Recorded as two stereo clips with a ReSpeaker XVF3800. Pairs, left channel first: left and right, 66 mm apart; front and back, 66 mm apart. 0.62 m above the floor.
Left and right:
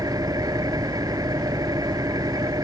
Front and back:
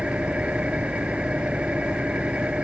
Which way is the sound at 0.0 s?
110° right.